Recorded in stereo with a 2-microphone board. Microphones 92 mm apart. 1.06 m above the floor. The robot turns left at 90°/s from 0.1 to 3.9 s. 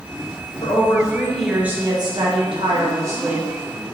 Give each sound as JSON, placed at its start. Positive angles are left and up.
{"t": 0.6, "sound": "a woman speaking", "azimuth_deg": 75, "distance_m": 1.3}